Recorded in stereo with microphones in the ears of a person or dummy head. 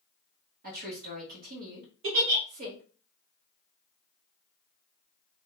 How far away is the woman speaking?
About 1.1 m.